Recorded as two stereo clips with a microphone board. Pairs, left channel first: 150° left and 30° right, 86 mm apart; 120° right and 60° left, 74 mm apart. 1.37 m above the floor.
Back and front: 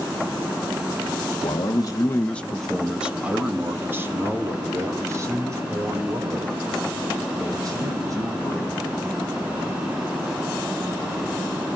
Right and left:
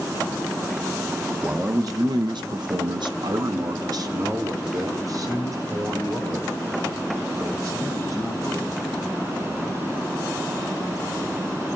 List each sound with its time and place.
1.4 s a man speaking: 125° left, 1.3 m; by 8.7 s 15° left, 8 m